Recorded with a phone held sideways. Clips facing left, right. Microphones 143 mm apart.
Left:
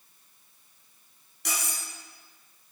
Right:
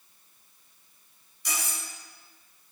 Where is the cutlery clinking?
65° left (ahead or behind), 2.5 m.